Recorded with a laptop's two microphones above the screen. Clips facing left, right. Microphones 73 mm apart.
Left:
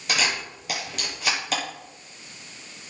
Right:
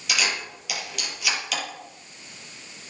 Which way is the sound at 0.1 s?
35° left (ahead or behind).